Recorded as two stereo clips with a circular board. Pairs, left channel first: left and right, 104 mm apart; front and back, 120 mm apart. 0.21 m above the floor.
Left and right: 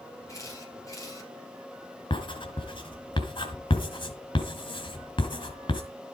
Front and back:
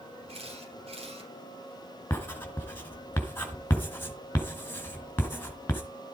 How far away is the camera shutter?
About 6 m.